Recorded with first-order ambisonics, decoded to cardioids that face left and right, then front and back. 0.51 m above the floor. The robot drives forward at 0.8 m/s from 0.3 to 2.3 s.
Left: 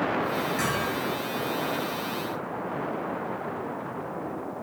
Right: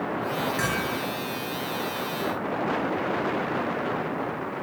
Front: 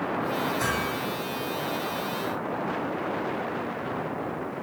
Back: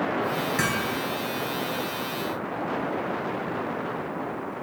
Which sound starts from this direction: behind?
Hammering, at 0.6 s.